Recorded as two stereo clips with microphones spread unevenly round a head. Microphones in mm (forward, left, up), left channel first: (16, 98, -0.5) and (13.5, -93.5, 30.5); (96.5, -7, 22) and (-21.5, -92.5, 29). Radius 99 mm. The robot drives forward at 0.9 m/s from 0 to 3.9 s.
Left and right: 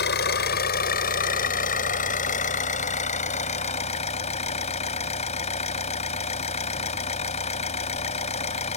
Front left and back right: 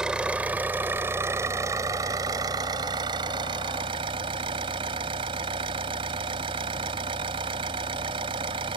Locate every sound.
0.0 s an engine running: 130° left; by 8.8 s 150° left